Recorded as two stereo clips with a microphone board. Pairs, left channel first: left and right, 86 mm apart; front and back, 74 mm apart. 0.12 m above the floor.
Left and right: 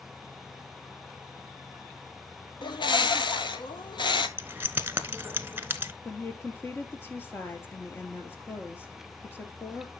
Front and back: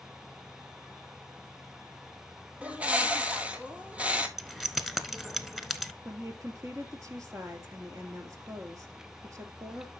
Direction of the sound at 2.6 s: 110° left.